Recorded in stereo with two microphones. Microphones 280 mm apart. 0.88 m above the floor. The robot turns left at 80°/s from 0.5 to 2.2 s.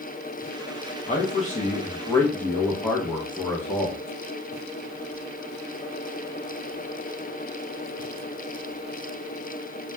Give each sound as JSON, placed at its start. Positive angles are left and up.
{"t": 1.1, "sound": "a man speaking", "side_deg": 25, "distance_m": 0.6}